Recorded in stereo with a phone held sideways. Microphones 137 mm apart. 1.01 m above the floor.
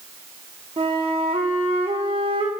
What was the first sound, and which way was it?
A flute, 40° right (ahead or behind).